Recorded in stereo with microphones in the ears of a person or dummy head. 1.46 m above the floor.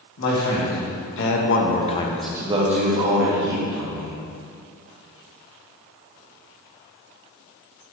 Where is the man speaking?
80° left, 1.9 m; by 4.2 s 65° right (ahead or behind), 1.9 m.